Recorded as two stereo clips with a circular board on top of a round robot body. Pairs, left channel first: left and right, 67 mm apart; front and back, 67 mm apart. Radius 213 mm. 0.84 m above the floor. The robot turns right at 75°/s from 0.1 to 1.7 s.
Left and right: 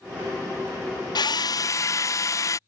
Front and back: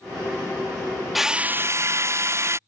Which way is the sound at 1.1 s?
90° left.